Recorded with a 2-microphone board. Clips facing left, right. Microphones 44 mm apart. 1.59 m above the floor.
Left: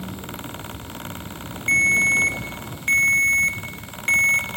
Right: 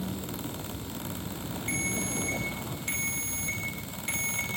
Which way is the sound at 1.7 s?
55° left (ahead or behind).